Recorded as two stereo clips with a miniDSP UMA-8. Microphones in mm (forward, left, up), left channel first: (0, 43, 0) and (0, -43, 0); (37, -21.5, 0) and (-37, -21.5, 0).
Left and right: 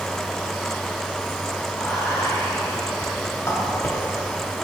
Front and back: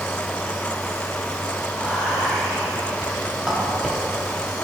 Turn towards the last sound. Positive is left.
turn(degrees=100)